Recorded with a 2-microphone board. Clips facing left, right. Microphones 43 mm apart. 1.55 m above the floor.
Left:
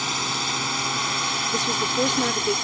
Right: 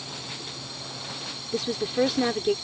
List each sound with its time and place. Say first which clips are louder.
0.0 s a drone: left 12 dB; 70° left (ahead or behind)
1.5 s a woman speaking: right 1 dB; 10° right (ahead or behind)